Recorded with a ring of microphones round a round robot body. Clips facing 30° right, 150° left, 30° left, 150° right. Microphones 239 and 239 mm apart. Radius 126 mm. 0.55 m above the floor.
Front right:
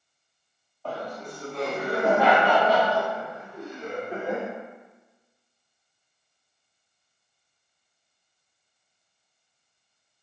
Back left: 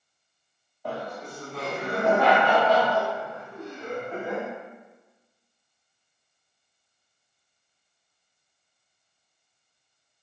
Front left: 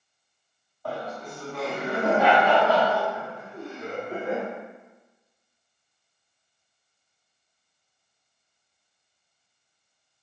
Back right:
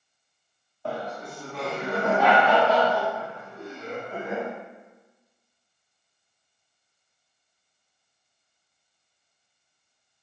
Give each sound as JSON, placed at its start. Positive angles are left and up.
{"t": 0.8, "sound": "laughter", "azimuth_deg": -155, "distance_m": 1.1}